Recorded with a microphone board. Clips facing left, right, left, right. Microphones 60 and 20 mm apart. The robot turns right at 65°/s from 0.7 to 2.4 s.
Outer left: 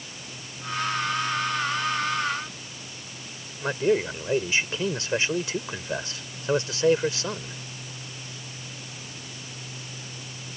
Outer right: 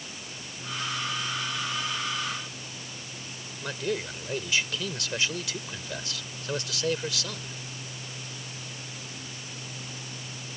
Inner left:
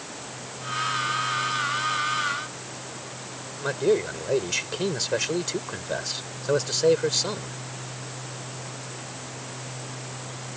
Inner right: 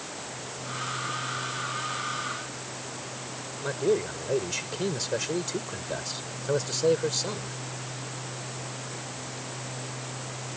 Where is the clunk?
No clunk in this recording.